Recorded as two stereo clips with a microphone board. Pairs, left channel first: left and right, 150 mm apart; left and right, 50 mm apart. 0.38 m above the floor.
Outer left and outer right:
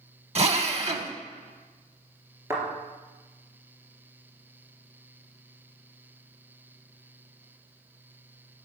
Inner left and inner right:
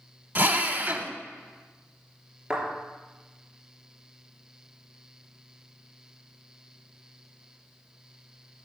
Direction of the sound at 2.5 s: 20° right (ahead or behind).